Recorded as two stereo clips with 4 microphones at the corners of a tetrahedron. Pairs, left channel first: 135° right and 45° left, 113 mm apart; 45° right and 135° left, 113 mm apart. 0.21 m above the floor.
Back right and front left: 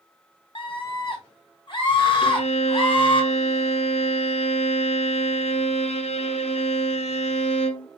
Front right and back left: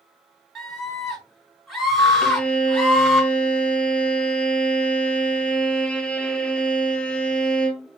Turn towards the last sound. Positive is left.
turn(degrees=-125)